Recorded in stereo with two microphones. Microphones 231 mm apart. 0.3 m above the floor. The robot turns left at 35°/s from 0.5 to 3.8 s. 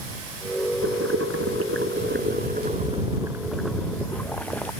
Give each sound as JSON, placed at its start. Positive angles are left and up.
{"t": 0.8, "sound": "boiling", "azimuth_deg": -80}